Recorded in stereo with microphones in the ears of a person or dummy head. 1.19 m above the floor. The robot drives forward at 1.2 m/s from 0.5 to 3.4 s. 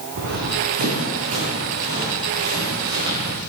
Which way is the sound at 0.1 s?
50° right (ahead or behind).